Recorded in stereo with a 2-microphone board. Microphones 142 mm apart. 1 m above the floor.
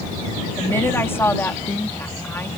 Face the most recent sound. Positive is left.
turn(degrees=15)  # may be behind; listen again after turning